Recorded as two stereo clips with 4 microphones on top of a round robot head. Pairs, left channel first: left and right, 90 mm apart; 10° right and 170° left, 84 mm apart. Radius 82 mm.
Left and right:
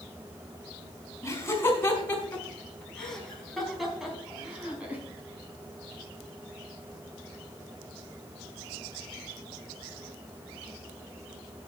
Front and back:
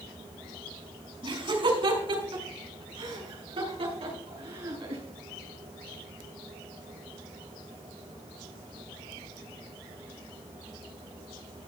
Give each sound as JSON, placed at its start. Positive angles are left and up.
{"t": 1.2, "sound": "laughter", "azimuth_deg": 155, "distance_m": 5.5}